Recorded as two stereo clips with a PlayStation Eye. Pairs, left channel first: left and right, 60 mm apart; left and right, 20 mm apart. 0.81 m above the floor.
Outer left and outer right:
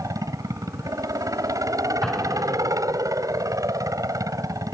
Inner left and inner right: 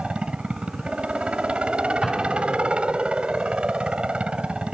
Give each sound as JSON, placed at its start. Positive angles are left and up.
{"t": 0.0, "sound": "a helicopter", "side_deg": -70}
{"t": 2.0, "sound": "an explosion", "side_deg": 5}